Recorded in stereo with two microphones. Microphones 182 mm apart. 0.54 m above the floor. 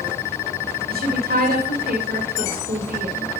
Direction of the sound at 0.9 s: 55° right (ahead or behind).